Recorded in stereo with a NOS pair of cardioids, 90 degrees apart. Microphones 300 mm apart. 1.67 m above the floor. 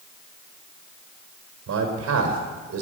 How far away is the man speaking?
About 5 m.